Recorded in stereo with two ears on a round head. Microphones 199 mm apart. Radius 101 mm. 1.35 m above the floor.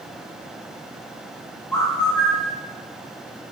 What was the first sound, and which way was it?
A bird, 15° left (ahead or behind).